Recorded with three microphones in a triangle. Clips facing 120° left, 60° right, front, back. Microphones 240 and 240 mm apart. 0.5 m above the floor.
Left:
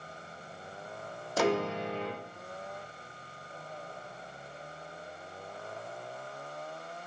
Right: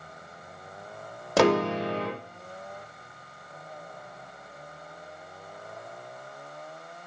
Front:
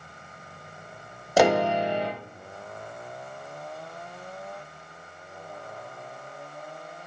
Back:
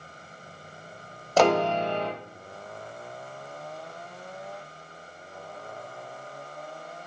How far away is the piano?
About 0.7 m.